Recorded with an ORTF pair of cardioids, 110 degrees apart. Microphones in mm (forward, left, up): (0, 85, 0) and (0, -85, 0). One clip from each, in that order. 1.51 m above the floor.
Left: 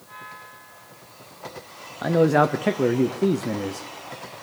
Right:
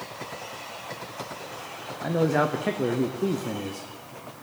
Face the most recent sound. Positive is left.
turn(degrees=25)